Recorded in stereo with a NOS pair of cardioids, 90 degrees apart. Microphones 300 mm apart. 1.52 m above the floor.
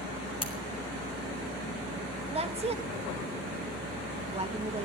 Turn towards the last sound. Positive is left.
turn(degrees=-20)